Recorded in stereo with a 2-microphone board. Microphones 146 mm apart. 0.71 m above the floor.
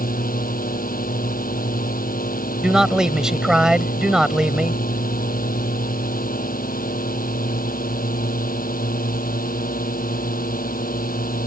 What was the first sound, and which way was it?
A drone, 80° left.